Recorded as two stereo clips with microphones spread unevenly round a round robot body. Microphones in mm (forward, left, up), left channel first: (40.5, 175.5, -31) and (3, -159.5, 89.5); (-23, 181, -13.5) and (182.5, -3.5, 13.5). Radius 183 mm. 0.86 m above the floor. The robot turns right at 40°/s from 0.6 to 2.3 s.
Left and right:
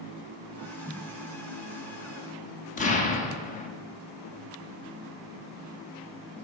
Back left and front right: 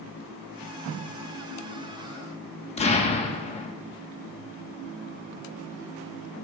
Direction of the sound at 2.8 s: 95° left.